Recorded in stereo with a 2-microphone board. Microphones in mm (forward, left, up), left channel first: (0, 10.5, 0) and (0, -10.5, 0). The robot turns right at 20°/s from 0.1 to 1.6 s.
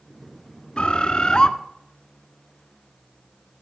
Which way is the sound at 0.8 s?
55° left (ahead or behind).